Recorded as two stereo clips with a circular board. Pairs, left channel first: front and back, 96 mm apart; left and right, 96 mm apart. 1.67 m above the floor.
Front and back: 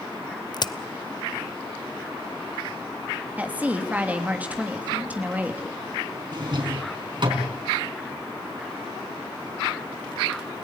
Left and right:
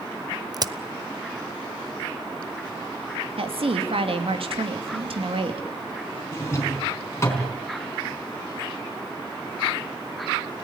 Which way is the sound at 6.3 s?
150° left.